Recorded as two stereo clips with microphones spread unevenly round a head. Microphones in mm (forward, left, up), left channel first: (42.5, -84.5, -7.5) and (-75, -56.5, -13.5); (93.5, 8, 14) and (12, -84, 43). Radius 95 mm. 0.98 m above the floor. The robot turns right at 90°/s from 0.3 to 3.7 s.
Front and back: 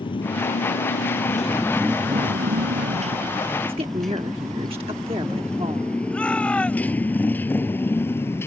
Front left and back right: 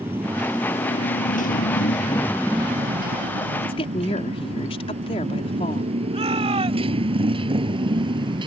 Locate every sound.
0.0 s a motorcycle: 60° right; by 8.5 s 85° right
3.6 s a woman speaking: 95° left; by 5.9 s 105° left
6.1 s a shout: 95° right